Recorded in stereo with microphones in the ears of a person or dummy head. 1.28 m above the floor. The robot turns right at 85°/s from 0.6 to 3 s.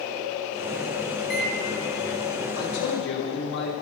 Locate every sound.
1.2 s a microwave: 40° left (ahead or behind), 2 m; by 1.5 s 70° left (ahead or behind), 2 m
2.6 s a man speaking: 85° left, 3.5 m; by 3.7 s 120° left, 3.5 m